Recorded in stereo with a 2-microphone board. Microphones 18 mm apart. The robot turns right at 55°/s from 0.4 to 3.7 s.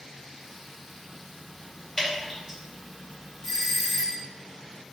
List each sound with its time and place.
2.0 s dripping: 25° left (ahead or behind), 1.9 m; by 2.6 s 5° right (ahead or behind), 1.9 m
3.4 s a doorbell: 15° left (ahead or behind), 1.3 m; by 4.2 s 10° left (ahead or behind), 1.3 m